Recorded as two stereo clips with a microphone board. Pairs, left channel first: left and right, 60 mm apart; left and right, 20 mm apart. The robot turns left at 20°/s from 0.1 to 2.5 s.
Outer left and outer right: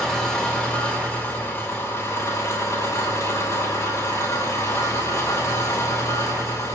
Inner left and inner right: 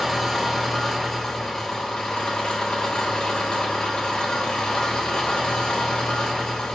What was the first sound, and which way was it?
An engine running, 175° left.